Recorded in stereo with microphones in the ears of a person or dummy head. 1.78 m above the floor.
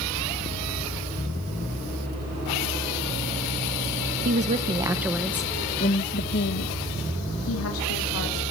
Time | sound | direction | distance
4.2 | a woman speaking | 45° right (ahead or behind) | 1.8 m